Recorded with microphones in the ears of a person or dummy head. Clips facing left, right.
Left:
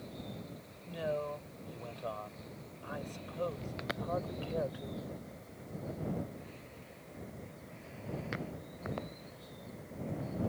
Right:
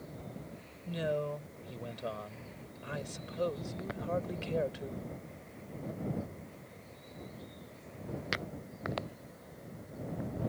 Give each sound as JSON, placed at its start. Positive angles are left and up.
{"t": 0.8, "sound": "a man speaking", "side_deg": -35}